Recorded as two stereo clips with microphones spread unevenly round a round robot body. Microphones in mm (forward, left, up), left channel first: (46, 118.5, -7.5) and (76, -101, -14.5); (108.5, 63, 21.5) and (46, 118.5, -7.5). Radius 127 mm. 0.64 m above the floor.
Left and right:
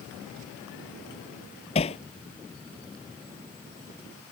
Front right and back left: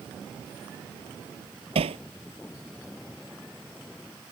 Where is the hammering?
165° left.